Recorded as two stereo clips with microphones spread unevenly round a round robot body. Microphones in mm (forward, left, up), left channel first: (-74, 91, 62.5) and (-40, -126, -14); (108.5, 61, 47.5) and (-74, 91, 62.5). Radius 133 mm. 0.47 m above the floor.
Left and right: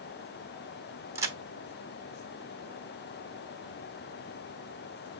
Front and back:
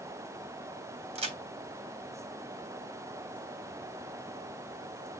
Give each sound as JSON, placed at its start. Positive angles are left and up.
{"t": 1.1, "sound": "a crack", "azimuth_deg": -135, "distance_m": 1.0}